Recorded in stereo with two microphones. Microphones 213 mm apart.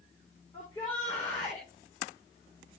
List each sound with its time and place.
0.5 s a shout: 20° left (ahead or behind), 8 m